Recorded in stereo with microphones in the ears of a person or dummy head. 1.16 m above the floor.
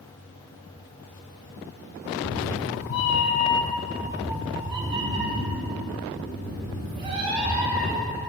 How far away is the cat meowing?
About 1.6 m.